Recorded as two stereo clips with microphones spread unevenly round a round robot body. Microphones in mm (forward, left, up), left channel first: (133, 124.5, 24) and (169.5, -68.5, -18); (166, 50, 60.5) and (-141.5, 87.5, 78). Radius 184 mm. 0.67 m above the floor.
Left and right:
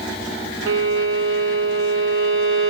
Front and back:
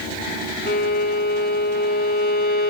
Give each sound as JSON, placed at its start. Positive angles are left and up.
{"t": 0.7, "sound": "a violin", "azimuth_deg": -70, "distance_m": 0.8}